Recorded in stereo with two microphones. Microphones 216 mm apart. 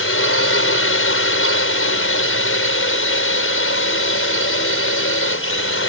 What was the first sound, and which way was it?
A drone, 75° left (ahead or behind).